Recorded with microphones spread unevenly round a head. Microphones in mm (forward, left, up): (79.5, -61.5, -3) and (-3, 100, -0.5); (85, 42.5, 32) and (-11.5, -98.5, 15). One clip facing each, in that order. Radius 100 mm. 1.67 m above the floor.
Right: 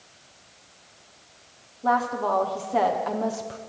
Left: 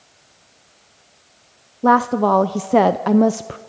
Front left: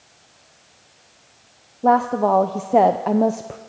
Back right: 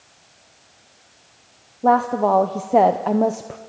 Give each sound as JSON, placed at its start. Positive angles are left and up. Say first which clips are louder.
{"t": 1.8, "sound": "a woman speaking", "louder": "left 9 dB, even", "azimuth_deg": 140, "distance_m": 0.7}